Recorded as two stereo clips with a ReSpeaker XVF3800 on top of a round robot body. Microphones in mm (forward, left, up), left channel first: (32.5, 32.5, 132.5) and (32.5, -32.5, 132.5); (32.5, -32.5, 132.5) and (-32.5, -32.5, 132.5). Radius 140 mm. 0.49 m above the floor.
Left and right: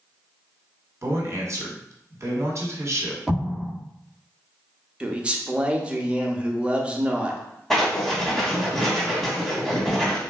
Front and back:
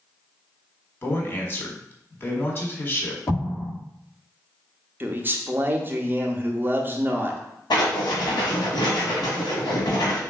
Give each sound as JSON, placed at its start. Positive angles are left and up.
{"t": 1.0, "sound": "a man speaking", "azimuth_deg": -50, "distance_m": 1.4}
{"t": 3.3, "sound": "an explosion", "azimuth_deg": -10, "distance_m": 1.4}
{"t": 5.0, "sound": "a man speaking", "azimuth_deg": -150, "distance_m": 0.8}
{"t": 7.7, "sound": "writing", "azimuth_deg": 5, "distance_m": 1.1}